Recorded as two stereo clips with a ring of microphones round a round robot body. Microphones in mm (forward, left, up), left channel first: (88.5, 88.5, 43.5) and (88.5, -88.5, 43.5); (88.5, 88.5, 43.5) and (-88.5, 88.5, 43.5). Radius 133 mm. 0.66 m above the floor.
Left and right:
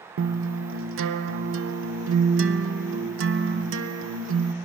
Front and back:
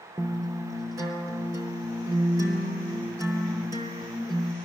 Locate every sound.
0.2 s a guitar: 105° right, 0.7 m